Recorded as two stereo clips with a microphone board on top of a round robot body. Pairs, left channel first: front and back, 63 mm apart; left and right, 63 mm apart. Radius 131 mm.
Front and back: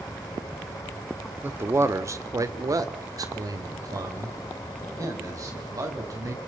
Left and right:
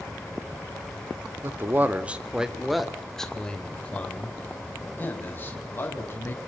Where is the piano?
No piano in this recording.